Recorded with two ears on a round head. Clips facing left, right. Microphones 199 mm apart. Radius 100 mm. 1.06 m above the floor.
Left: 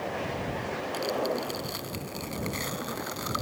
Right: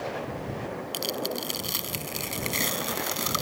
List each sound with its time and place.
0.9 s tearing paper: 40° right (ahead or behind)